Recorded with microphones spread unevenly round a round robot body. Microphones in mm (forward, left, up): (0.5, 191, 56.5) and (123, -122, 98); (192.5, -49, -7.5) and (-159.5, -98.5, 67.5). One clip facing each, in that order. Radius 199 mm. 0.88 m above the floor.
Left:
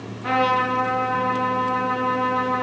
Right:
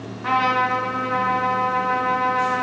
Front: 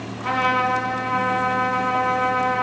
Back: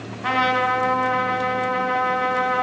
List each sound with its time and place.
0.2 s a trumpet: 145° right, 2.5 m